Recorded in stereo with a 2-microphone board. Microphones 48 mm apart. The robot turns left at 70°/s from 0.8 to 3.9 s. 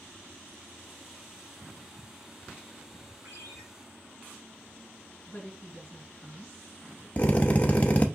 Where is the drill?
30° left (ahead or behind), 0.5 m.